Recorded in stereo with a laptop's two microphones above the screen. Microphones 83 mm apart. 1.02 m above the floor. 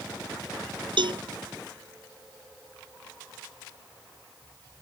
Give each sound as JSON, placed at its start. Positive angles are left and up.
{"t": 1.0, "sound": "a cowbell", "side_deg": -75}